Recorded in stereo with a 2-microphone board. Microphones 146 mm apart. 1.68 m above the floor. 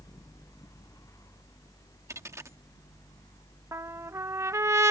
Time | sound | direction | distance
2.1 | a dropped coin | 20° right (ahead or behind) | ?
3.7 | a trumpet | 20° right (ahead or behind) | ?